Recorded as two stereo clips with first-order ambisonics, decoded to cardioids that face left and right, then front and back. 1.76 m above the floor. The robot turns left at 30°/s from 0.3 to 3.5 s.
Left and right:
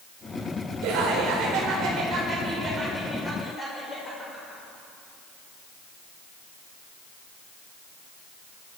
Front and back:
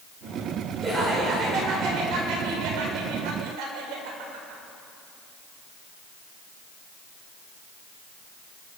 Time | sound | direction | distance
0.8 | laughter | 110° right | 8 m